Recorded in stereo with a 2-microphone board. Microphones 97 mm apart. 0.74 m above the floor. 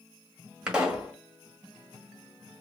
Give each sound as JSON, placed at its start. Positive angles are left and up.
{"t": 0.7, "sound": "a pop", "side_deg": -5, "distance_m": 1.2}